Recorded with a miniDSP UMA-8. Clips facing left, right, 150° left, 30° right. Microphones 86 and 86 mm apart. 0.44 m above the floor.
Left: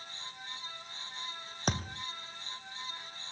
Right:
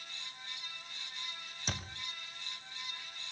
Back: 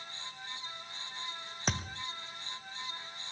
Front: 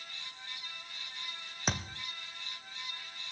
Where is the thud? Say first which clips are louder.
Left 8 dB, even; 55° left, 1.5 m.